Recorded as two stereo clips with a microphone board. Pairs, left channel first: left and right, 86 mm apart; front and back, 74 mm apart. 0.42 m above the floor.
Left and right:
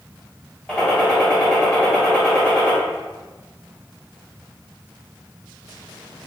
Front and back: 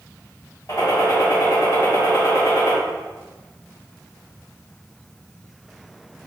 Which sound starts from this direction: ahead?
A gunshot, at 0.7 s.